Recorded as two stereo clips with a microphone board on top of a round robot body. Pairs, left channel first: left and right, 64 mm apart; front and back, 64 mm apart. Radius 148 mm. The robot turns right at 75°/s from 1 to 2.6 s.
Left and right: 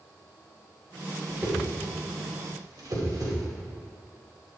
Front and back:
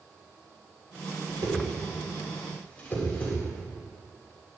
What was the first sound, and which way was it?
A whoosh, 175° right.